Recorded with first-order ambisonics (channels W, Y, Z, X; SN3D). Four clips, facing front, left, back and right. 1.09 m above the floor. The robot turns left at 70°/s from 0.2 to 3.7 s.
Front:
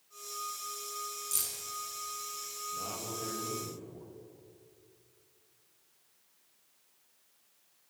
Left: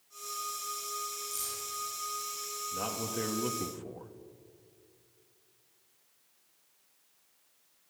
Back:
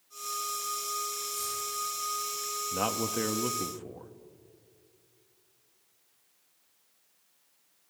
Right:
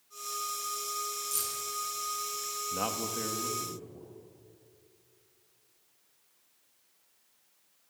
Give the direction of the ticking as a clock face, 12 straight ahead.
I don't hear ticking.